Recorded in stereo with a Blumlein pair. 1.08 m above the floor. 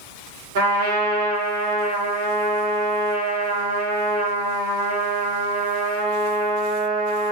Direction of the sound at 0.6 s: 55° right.